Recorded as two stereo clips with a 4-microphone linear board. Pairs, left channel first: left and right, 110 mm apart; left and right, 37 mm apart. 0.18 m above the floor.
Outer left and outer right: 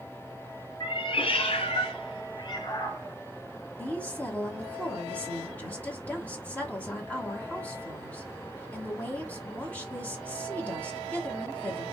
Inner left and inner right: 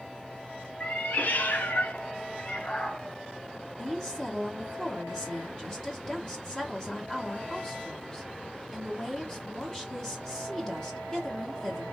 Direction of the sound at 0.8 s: 45° left (ahead or behind).